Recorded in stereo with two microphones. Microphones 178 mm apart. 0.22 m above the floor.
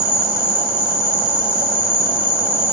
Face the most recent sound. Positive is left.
turn(degrees=-5)  # may be behind; listen again after turning